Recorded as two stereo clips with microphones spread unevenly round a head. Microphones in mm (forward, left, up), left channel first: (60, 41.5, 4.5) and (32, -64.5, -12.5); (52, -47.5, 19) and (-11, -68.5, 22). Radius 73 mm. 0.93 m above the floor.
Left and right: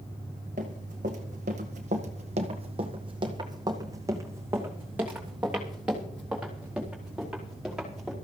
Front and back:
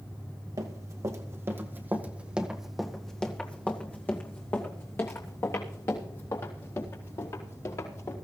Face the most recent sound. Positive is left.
turn(degrees=-15)